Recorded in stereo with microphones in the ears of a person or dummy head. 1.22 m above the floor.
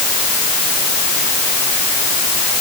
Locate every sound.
Only background noise.